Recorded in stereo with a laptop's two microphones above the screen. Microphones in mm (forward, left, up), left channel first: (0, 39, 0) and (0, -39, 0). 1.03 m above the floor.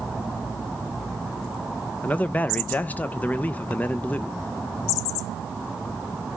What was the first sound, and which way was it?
A man speaking, 20° left (ahead or behind).